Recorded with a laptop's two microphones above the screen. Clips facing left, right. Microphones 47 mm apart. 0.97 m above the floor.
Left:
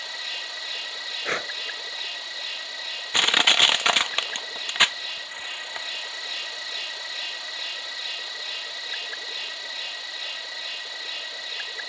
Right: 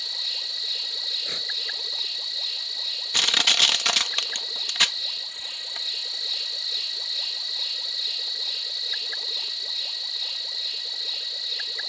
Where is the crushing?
25° left (ahead or behind).